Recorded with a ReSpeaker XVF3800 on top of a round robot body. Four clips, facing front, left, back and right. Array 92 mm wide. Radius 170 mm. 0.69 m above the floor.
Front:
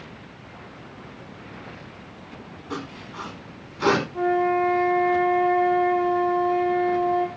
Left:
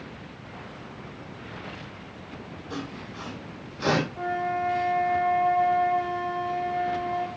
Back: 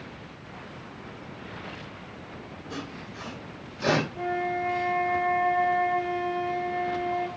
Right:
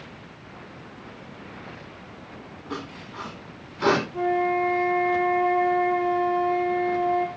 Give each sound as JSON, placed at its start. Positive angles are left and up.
{"t": 2.7, "sound": "sawing", "azimuth_deg": -60, "distance_m": 8.5}
{"t": 4.1, "sound": "a flute", "azimuth_deg": -55, "distance_m": 9.5}